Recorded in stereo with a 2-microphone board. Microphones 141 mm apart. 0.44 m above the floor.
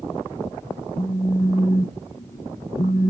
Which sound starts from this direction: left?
A phone buzzing, at 0.9 s.